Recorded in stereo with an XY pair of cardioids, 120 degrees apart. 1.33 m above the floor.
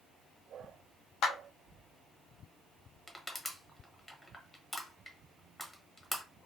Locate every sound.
1.2 s a clap: 65° left, 1.0 m
3.1 s crushing: 15° left, 0.9 m